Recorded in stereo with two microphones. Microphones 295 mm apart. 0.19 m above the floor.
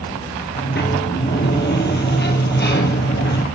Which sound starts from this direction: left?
A sliding door, at 0.6 s.